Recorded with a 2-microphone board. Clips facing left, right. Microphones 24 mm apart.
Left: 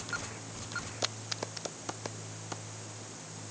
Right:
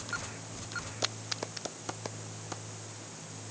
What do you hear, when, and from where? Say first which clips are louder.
1.0 s a splash: right 2 dB; 10° right (ahead or behind)